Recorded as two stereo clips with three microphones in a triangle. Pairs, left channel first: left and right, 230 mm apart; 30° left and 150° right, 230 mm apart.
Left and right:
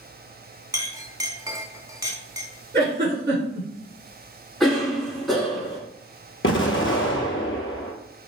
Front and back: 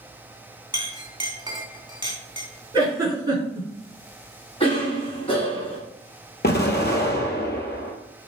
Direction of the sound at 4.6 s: 5° left.